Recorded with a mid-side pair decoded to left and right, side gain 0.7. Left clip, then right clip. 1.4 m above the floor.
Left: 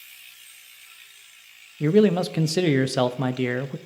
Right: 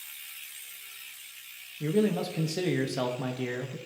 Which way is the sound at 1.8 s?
40° left.